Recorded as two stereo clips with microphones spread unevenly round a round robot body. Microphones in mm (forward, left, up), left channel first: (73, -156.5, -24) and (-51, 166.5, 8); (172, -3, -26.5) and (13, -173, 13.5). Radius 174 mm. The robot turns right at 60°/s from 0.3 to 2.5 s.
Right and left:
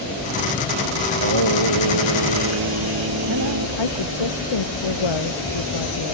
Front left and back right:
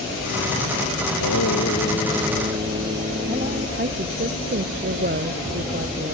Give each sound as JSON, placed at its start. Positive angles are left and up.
{"t": 1.1, "sound": "singing", "azimuth_deg": 75}
{"t": 3.8, "sound": "a woman speaking", "azimuth_deg": -90}